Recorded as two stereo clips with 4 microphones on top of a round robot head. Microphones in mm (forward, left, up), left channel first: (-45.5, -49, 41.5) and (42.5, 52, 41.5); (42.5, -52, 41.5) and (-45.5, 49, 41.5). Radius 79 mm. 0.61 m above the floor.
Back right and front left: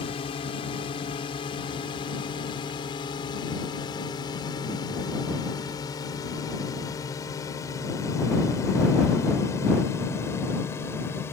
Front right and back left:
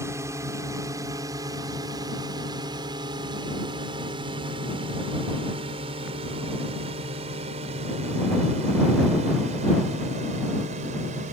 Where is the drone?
165° right; by 11.3 s 160° left.